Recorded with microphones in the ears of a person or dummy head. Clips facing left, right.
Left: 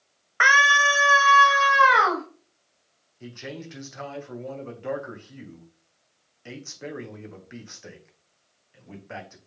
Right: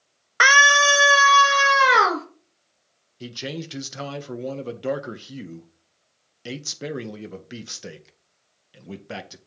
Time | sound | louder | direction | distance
0.4 | a scream | right 4 dB | 55° right (ahead or behind) | 0.9 m
3.2 | a man speaking | right 5 dB | 55° right (ahead or behind) | 1.5 m